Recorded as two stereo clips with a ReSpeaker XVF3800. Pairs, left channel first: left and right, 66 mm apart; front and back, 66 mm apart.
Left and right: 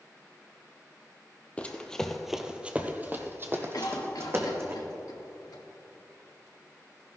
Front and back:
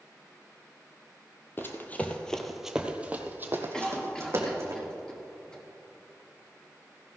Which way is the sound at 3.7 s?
80° left.